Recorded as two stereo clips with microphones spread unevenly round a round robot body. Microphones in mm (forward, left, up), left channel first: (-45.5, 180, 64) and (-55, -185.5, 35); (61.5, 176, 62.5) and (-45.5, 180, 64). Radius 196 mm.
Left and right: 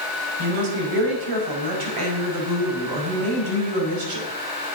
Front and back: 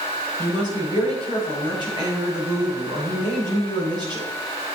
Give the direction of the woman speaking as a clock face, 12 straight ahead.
2 o'clock.